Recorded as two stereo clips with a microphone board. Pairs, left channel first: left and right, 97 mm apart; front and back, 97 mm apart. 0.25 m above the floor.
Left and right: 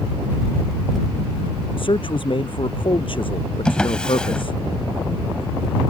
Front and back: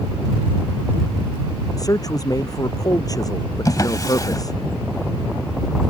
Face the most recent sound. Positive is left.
turn(degrees=15)